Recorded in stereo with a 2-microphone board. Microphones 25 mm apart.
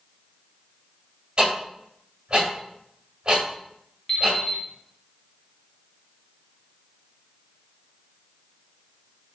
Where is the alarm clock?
25° left (ahead or behind), 1.1 m.